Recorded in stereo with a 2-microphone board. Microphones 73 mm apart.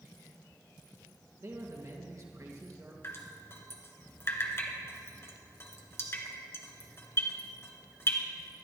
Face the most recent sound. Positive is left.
turn(degrees=35)  # may be behind; listen again after turning